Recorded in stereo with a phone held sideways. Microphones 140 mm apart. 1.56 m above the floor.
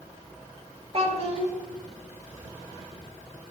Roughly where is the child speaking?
Right.